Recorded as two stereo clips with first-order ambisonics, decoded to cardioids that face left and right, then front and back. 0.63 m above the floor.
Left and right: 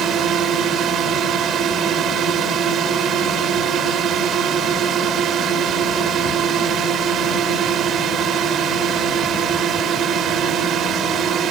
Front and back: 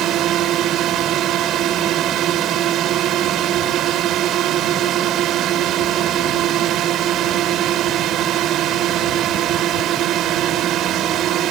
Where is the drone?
140° right.